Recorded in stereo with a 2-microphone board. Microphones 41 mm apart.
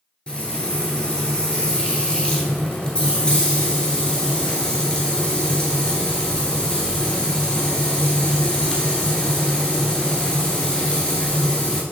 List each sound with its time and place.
0.3 s frying: 20° left (ahead or behind), 1.0 m